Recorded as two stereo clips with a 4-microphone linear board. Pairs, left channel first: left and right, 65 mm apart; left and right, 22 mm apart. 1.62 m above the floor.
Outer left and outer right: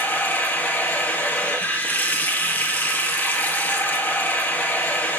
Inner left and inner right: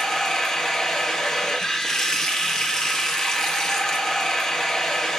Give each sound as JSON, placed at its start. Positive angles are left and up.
{"t": 0.0, "sound": "running water", "side_deg": 25, "distance_m": 1.8}